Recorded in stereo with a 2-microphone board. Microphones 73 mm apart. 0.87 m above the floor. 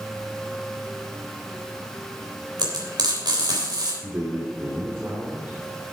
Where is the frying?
70° right (ahead or behind), 3.5 m.